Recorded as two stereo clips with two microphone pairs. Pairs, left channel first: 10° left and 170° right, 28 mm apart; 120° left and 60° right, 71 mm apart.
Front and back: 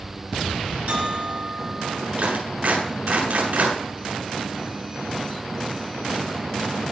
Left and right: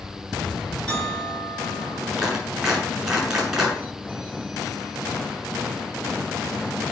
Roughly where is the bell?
Behind.